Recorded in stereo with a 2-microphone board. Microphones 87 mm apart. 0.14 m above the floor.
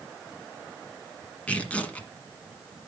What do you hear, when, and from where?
1.5 s tearing paper: 15° left (ahead or behind), 1.6 m